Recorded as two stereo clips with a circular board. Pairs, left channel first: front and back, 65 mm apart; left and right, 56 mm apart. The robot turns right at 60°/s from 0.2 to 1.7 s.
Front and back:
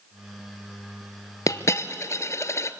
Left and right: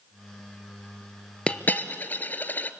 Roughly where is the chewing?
I don't hear chewing.